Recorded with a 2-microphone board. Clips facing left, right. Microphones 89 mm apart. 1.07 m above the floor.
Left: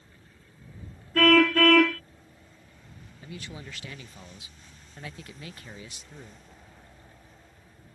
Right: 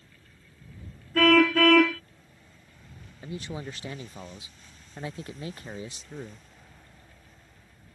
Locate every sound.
1.1 s a car horn: 5° right (ahead or behind)
3.2 s a man speaking: 30° right (ahead or behind)